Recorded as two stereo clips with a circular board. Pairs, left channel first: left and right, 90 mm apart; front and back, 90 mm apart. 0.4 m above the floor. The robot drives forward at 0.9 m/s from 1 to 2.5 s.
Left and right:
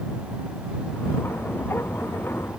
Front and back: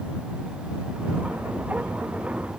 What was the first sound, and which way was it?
Only background noise.